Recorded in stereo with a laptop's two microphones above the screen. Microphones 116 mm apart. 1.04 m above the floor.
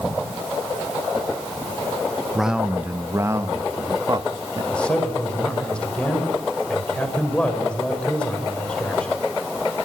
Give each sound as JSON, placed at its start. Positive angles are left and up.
{"t": 2.4, "sound": "a man speaking", "side_deg": 0, "distance_m": 0.8}
{"t": 4.7, "sound": "a man speaking", "side_deg": 10, "distance_m": 5.0}